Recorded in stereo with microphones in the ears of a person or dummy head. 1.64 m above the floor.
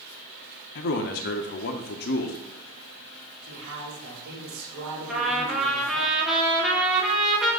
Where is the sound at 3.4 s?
80° right, 2.5 m.